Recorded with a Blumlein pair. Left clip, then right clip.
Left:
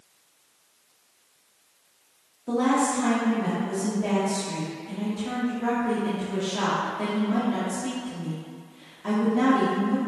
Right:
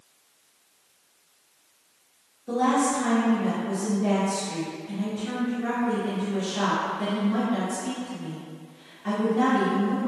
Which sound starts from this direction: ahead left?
A woman speaking, at 2.5 s.